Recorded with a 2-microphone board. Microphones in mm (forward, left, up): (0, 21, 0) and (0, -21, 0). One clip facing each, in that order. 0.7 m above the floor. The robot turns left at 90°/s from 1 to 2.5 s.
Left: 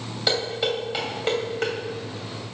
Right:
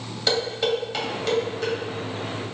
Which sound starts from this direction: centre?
Dishes clattering, at 0.3 s.